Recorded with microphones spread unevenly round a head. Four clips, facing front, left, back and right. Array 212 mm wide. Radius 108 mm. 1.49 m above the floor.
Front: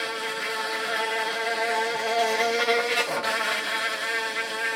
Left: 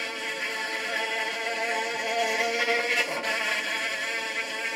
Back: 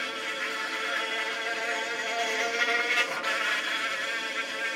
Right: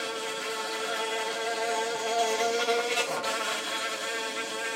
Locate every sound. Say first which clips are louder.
0.0 s an insect: right 1 dB, front 4 dB; 5° left, 0.9 m